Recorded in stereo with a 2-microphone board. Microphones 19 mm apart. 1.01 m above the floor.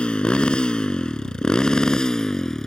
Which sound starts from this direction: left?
A motorcycle, at 0.0 s.